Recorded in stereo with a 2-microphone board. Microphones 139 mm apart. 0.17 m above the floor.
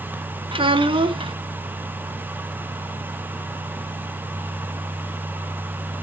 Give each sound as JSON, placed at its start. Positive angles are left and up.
{"t": 0.5, "sound": "a child speaking", "side_deg": -40, "distance_m": 0.7}